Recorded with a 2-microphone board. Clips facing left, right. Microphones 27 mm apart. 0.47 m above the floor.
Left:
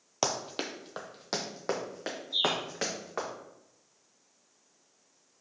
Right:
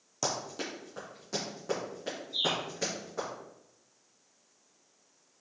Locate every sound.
0.2 s running footsteps: 50° left (ahead or behind), 0.6 m; by 3.3 s 75° left (ahead or behind), 2 m
2.3 s a bird: 80° left, 1.6 m